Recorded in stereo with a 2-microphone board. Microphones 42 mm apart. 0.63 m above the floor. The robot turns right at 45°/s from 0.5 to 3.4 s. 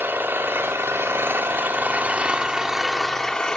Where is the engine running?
115° right, 1.4 m; by 3.6 s 15° left, 1.4 m.